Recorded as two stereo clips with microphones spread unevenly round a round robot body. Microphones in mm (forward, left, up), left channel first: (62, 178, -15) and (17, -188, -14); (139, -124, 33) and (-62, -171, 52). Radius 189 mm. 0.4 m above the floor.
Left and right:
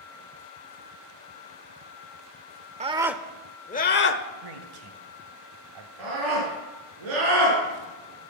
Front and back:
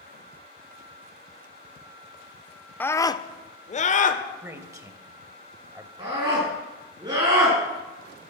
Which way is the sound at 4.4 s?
90° right.